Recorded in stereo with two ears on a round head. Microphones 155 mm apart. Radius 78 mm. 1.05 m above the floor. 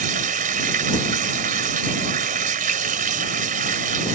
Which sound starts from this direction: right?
Running water, at 0.0 s.